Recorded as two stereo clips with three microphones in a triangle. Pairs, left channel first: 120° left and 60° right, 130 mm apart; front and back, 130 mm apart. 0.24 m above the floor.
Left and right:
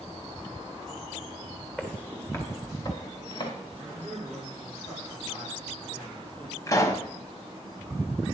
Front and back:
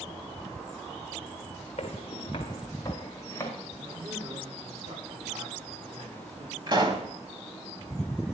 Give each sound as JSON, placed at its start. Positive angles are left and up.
{"t": 1.8, "sound": "footsteps", "azimuth_deg": 40, "distance_m": 3.5}
{"t": 3.8, "sound": "a man speaking", "azimuth_deg": -170, "distance_m": 7.5}
{"t": 6.7, "sound": "a pop", "azimuth_deg": 165, "distance_m": 1.9}